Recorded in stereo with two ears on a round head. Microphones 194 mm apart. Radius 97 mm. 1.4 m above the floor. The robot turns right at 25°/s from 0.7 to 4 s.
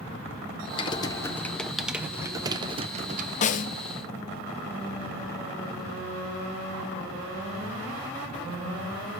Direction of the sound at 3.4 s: 35° left (ahead or behind).